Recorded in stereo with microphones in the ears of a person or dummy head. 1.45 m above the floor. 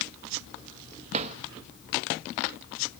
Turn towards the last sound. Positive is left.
turn(degrees=-45)  # may be behind; listen again after turning